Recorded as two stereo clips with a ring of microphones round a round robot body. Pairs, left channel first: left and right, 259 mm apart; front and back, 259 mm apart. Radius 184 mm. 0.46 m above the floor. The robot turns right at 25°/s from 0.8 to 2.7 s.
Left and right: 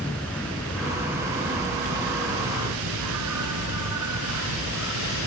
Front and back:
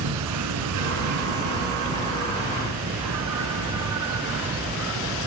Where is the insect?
175° left; by 5.3 s 135° right.